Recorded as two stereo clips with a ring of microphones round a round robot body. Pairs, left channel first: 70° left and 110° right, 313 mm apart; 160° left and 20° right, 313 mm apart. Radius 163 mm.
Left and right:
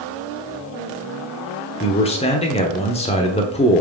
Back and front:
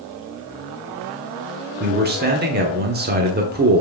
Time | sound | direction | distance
1.8 | a man speaking | 10° left | 0.9 m